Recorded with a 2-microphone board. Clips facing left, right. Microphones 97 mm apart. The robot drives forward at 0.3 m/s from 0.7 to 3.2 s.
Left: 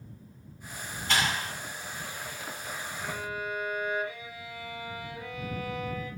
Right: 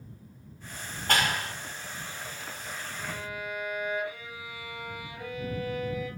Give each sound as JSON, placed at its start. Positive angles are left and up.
{"t": 1.1, "sound": "a clap", "side_deg": -55, "distance_m": 2.0}
{"t": 3.0, "sound": "a violin", "side_deg": -60, "distance_m": 10.0}